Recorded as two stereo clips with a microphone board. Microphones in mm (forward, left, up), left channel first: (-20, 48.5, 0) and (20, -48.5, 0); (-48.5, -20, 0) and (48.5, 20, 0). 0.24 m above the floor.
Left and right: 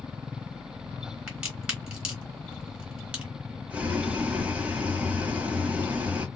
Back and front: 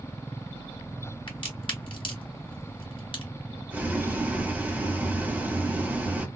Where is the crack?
150° right, 2.5 m.